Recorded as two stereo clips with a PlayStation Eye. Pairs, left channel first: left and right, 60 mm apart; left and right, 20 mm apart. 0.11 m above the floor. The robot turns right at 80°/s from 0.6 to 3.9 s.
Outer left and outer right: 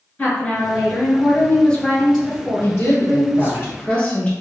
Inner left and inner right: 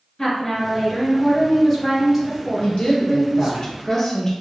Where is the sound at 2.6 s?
50° left, 2.0 m; by 4.3 s 155° left, 2.0 m.